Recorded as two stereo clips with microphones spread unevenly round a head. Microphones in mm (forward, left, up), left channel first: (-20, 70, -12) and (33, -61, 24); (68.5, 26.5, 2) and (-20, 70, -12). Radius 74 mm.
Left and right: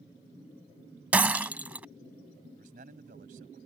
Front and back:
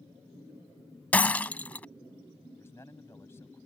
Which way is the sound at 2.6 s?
100° right.